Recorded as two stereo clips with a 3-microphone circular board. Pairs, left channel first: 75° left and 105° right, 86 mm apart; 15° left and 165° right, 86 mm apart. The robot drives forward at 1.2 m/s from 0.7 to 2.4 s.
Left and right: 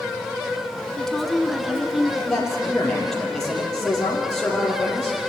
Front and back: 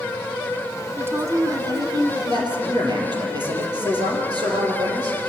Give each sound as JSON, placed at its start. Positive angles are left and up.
{"t": 1.0, "sound": "a woman speaking", "azimuth_deg": 155, "distance_m": 1.3}
{"t": 2.3, "sound": "a man speaking", "azimuth_deg": 160, "distance_m": 5.0}